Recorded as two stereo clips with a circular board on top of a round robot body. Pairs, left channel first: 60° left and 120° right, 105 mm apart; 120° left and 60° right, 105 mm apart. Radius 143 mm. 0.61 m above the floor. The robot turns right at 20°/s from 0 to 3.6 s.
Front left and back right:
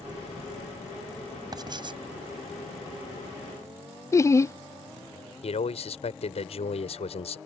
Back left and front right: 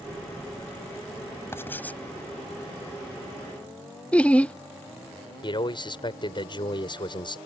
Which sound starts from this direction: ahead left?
Laughter, at 4.1 s.